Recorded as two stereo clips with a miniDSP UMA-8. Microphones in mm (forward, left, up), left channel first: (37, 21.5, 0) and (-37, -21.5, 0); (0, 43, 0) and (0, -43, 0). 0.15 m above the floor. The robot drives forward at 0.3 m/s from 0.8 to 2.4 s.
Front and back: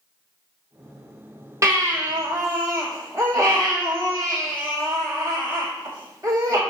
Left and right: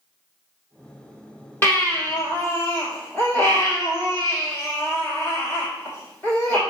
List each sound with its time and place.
1.6 s a baby crying: 155° left, 1.8 m; by 6.6 s 160° left, 2 m